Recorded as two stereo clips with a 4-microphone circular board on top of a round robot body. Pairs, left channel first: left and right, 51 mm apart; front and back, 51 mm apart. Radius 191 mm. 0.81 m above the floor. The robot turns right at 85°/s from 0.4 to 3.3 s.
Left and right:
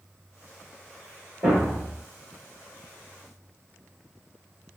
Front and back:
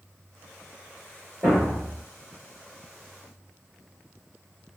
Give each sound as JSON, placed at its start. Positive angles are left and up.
{"t": 1.4, "sound": "a thud", "azimuth_deg": -135, "distance_m": 0.8}